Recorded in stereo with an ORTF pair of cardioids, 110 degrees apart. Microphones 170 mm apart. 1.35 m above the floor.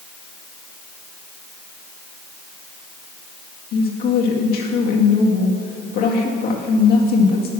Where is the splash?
I don't hear a splash.